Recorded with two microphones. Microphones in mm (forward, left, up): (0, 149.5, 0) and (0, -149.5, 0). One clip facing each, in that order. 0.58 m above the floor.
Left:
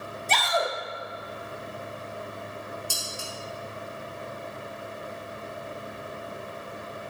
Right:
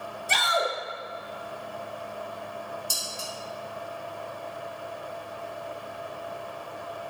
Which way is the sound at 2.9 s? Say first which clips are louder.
Left 1 dB; 25° right (ahead or behind).